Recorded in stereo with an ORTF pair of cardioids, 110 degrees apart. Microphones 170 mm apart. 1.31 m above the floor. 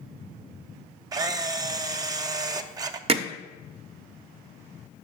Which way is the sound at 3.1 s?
35° right.